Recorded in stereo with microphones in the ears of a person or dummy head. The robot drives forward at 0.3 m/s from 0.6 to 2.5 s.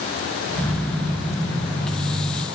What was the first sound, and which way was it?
Only background noise.